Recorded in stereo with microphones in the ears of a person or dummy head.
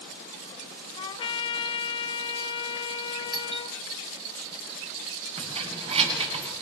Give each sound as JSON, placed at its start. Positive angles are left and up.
{"t": 1.0, "sound": "a trumpet", "side_deg": 25, "distance_m": 0.9}
{"t": 3.3, "sound": "a doorbell", "side_deg": 0, "distance_m": 1.1}
{"t": 5.4, "sound": "keys jangling", "side_deg": -35, "distance_m": 8.0}